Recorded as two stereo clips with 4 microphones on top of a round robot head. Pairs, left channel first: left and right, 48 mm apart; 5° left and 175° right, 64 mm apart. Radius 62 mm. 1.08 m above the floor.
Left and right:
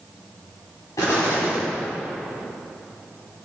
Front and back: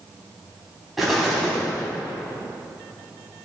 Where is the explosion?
100° left, 4 m.